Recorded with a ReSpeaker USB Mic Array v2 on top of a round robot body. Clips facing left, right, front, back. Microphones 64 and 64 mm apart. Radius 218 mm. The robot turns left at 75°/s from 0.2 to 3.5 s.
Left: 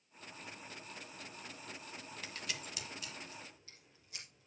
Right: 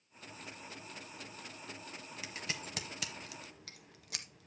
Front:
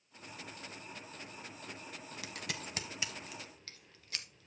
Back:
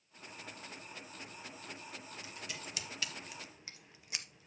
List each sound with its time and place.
2.2 s scissors: 10° right, 0.9 m; by 4.5 s 105° right, 0.9 m